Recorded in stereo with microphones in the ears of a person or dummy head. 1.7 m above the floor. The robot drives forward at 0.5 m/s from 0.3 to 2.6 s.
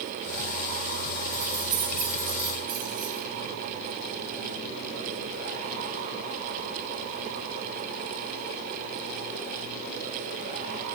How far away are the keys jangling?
About 1.6 m.